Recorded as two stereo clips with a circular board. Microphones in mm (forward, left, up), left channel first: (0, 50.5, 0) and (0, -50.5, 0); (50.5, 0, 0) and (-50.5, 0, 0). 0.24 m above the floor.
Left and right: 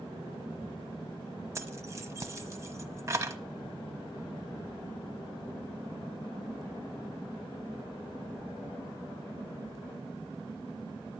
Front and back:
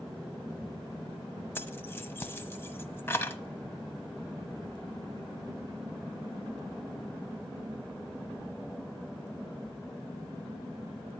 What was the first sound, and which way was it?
Keys jangling, 50° right.